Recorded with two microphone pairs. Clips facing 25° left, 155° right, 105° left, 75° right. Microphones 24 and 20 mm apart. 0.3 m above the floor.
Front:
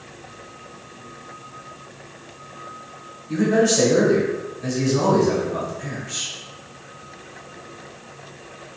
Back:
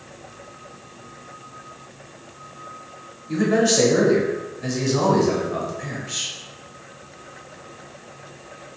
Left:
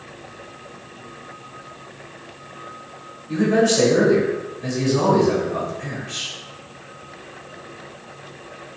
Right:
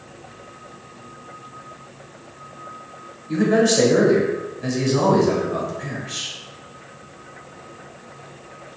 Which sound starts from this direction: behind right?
A man speaking, at 3.3 s.